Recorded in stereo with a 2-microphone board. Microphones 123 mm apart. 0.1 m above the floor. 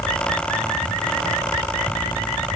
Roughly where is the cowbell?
I don't hear a cowbell.